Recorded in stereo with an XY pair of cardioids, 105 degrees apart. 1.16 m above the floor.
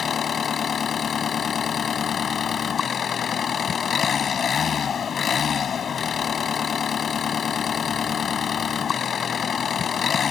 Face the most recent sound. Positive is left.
turn(degrees=45)